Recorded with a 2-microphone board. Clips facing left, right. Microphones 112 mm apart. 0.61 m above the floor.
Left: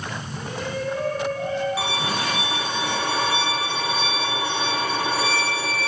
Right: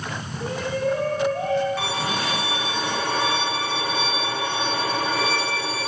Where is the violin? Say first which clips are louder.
Even; 5° left (ahead or behind), 6 m.